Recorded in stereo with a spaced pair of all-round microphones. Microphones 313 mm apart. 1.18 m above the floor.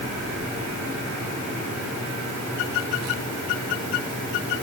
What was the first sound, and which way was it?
Only background noise.